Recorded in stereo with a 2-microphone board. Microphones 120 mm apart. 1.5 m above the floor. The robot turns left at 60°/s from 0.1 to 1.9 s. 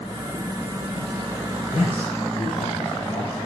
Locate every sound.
1.7 s a man speaking: 80° left, 5.5 m; by 3.4 s 70° left (ahead or behind), 5.5 m